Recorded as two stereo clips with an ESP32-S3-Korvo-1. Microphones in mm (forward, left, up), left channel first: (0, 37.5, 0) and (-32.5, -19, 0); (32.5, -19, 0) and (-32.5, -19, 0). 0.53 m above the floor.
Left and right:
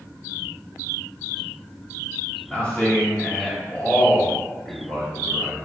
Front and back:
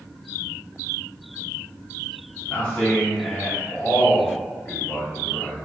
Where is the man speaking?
30° left, 1.4 m.